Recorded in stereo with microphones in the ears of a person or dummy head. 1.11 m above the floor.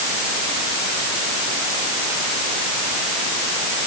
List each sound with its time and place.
Only background noise.